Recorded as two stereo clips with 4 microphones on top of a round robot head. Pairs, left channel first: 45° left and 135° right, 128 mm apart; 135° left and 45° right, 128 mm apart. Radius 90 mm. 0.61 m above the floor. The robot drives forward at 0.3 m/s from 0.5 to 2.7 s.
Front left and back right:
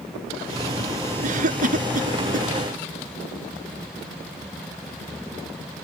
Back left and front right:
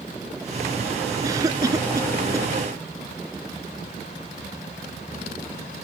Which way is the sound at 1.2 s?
110° right.